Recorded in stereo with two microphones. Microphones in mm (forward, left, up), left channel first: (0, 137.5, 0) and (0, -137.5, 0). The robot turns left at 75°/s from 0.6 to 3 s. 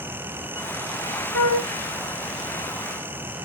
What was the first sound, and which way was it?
A flute, 65° right (ahead or behind).